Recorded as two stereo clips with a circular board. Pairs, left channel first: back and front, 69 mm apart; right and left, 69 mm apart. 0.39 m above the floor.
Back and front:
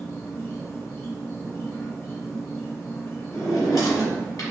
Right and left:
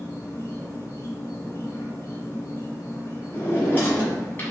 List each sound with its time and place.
0.0 s an insect: 130° right, 1.2 m
3.3 s a drawer: 150° right, 1.6 m